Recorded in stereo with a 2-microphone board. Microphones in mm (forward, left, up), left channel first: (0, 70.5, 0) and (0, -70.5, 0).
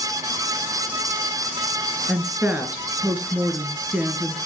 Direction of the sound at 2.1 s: 15° right (ahead or behind).